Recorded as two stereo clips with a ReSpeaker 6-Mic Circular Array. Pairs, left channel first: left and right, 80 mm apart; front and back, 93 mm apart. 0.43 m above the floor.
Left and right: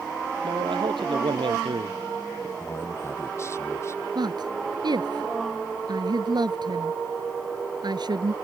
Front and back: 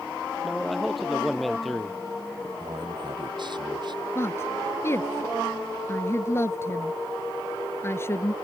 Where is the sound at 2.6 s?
145° left.